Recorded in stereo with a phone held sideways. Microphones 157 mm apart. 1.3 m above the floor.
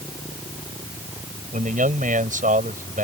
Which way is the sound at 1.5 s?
55° right (ahead or behind).